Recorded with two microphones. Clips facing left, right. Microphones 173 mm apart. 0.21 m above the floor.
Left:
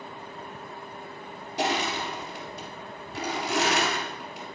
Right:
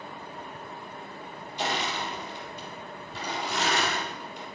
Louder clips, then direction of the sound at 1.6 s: Left 3 dB; 70° left (ahead or behind).